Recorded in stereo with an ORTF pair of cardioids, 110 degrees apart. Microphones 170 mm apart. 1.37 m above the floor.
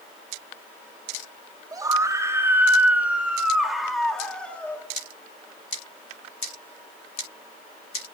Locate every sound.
1.7 s a scream: 20° right, 3.5 m; by 4.8 s 10° left, 3.5 m